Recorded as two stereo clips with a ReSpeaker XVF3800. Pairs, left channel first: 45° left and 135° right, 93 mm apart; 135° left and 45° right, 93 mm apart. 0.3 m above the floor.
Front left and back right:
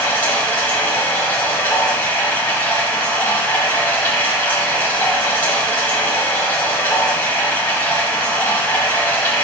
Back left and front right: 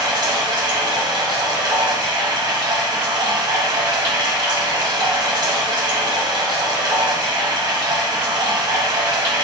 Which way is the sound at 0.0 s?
20° right.